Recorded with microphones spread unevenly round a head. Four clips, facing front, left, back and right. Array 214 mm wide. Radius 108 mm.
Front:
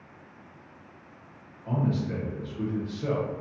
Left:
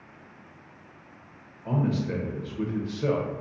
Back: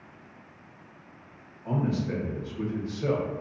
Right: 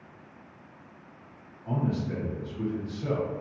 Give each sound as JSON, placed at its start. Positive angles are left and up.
{"t": 1.6, "sound": "a man speaking", "azimuth_deg": 110, "distance_m": 1.0}